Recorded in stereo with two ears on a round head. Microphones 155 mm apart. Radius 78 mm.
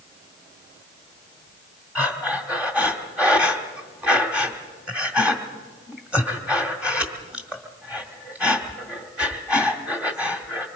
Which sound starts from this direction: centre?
Breathing, at 1.9 s.